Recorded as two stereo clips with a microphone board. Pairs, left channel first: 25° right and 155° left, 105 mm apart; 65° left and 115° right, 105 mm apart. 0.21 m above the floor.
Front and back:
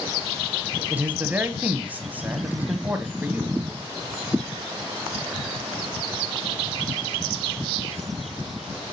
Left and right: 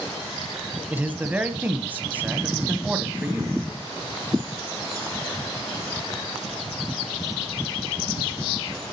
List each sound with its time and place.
0.9 s a man speaking: 155° right, 1.0 m